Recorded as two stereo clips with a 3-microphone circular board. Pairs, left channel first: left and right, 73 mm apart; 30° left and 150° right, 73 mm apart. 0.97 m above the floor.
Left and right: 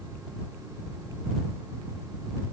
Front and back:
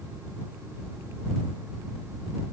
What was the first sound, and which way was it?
Only background noise.